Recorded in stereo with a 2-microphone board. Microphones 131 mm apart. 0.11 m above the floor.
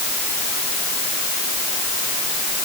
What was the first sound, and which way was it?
Only background noise.